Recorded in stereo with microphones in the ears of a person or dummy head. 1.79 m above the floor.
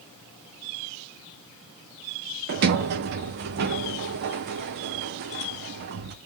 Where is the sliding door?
55° right (ahead or behind), 0.6 m.